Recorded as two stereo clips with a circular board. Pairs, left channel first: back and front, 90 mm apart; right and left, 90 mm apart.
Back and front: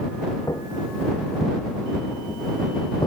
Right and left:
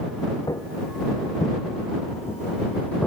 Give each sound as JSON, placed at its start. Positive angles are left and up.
{"t": 0.5, "sound": "footsteps", "azimuth_deg": -135}